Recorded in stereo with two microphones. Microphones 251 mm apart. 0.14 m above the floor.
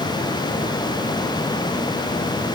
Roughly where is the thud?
I don't hear a thud.